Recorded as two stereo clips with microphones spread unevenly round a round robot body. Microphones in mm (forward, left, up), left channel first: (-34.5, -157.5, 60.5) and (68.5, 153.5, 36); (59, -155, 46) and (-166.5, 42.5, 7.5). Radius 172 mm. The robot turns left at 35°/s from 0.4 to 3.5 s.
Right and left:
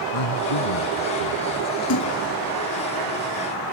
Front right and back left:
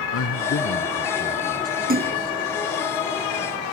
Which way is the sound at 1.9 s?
155° right.